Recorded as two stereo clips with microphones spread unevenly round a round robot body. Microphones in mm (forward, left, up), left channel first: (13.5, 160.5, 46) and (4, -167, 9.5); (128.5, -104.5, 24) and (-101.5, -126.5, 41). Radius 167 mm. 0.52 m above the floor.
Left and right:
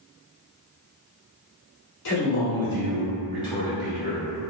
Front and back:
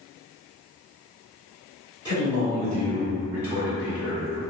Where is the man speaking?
110° left, 1.2 m; by 4.4 s 80° right, 0.9 m.